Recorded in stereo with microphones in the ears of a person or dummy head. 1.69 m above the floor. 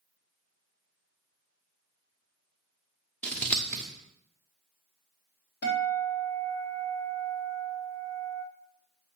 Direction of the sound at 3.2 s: 5° left (ahead or behind).